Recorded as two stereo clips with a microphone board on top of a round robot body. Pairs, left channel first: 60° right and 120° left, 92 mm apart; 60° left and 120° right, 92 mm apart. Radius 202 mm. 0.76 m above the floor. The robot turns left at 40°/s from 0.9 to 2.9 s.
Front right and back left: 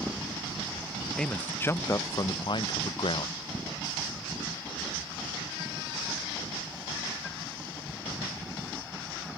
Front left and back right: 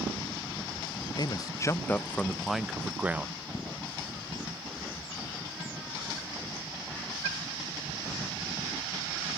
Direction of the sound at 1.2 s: 25° left.